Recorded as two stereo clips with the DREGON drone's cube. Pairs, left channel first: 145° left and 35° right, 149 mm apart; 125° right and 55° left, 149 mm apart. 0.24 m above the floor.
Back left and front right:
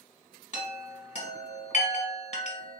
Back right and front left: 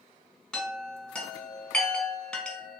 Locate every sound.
0.5 s a chime: 150° left, 1.2 m